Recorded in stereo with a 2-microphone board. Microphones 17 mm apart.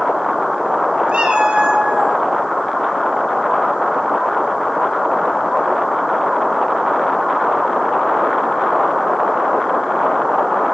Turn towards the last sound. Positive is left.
turn(degrees=-65)  # may be behind; listen again after turning